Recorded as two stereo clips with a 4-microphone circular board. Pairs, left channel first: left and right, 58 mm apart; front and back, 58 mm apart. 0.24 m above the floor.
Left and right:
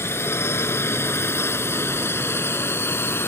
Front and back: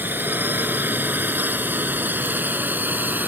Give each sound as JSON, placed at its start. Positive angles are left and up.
{"t": 0.0, "sound": "a drone", "azimuth_deg": 125}